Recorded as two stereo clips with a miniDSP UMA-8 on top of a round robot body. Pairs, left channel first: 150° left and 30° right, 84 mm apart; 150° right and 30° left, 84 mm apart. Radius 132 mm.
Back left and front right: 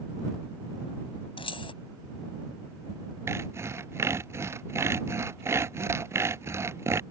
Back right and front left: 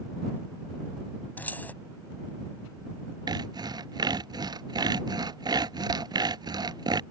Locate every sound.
1.4 s keys jangling: 140° left
3.3 s sawing: 20° left